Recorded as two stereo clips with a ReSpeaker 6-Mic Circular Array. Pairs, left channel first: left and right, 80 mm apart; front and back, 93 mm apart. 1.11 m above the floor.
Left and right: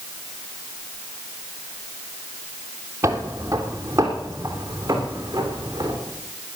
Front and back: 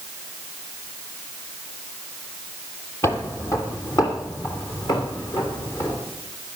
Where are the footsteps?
50° right, 1.6 m; by 6.0 s 40° right, 5 m.